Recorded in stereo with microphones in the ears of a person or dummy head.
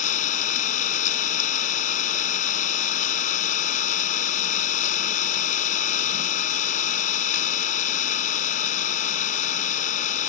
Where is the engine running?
45° left (ahead or behind).